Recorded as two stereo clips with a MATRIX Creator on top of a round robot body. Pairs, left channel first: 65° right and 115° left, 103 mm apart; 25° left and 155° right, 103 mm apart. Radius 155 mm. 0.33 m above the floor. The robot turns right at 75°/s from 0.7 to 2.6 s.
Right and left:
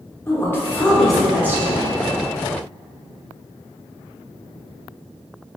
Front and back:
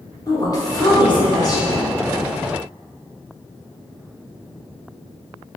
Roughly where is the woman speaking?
Ahead.